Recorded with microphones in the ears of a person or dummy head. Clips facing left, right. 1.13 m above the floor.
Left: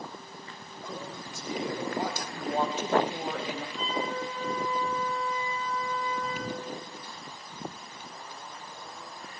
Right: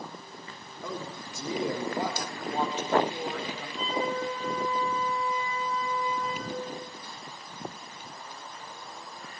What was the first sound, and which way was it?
A man speaking, 85° right.